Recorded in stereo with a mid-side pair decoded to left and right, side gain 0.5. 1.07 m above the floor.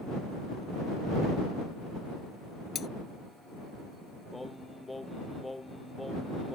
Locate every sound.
2.8 s cutlery clinking: 50° left
4.3 s singing: 10° left